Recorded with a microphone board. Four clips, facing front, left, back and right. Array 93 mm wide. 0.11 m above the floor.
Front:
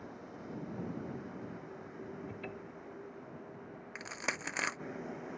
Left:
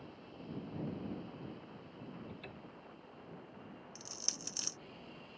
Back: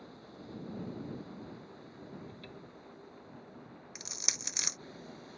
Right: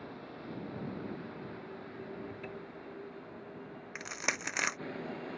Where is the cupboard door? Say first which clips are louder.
Right 7 dB, front 5 dB; 30° right.